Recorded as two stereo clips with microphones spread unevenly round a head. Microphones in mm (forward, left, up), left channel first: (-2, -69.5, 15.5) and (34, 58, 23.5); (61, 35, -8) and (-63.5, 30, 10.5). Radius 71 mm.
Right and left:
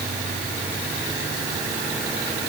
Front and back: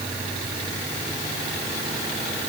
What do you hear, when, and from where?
Only background noise.